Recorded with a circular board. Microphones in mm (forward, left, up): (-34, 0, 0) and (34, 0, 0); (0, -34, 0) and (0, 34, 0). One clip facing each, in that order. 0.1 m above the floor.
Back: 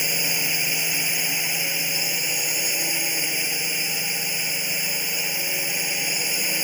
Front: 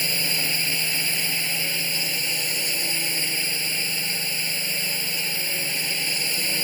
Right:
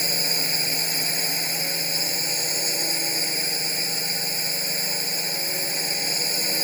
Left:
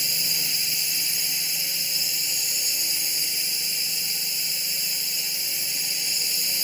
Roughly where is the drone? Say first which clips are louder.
Even, right 5 dB; right.